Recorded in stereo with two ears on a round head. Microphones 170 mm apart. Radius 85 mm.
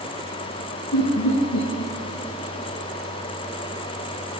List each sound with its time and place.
0.9 s laughter: 75° left (ahead or behind), 1.0 m